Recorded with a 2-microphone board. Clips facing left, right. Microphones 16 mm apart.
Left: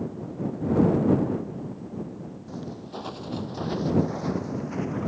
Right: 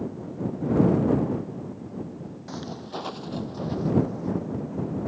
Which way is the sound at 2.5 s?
45° right (ahead or behind).